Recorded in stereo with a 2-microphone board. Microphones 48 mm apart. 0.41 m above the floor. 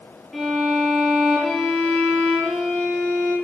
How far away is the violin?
About 7 m.